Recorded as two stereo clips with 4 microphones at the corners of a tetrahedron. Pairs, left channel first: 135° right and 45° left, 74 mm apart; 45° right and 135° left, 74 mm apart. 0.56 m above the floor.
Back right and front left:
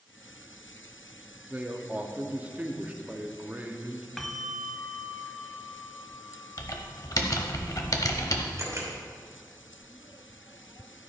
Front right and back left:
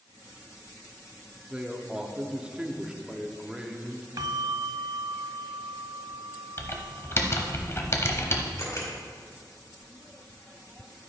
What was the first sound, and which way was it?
A man speaking, 70° left.